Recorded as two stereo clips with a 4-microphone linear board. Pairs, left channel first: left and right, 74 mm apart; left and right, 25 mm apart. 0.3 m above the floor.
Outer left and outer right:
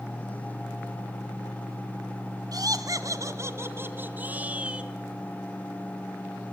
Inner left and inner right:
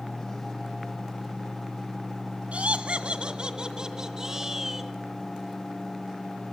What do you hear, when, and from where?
2.5 s laughter: 60° right (ahead or behind), 2 m; by 4.9 s 15° right (ahead or behind), 3 m